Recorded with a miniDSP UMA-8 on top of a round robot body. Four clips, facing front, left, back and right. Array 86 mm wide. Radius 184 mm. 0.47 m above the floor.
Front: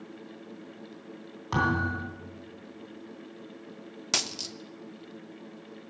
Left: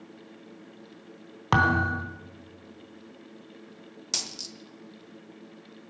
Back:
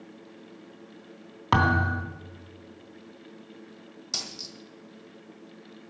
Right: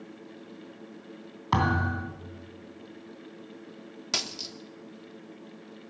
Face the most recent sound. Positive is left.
turn(degrees=-20)